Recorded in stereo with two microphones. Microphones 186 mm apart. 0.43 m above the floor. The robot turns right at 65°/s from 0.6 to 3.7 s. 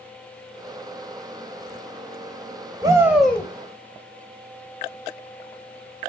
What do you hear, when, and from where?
2.8 s a shout: 25° right, 2.5 m; by 3.5 s 20° left, 2.5 m